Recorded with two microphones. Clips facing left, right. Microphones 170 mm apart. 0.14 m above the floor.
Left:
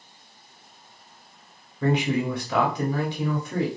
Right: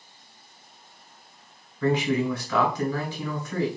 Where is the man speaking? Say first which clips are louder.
Even; 20° left (ahead or behind), 1.0 m.